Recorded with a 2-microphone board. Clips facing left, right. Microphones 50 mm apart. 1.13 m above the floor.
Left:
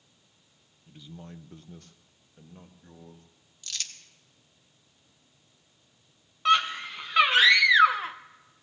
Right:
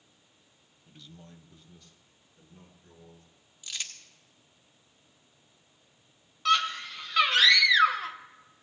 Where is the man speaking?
Centre (ahead or behind), 0.8 m; by 3.3 s 55° left (ahead or behind), 3 m.